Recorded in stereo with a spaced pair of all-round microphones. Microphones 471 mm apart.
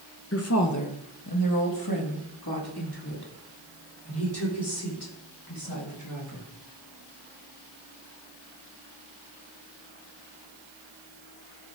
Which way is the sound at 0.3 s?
30° left (ahead or behind).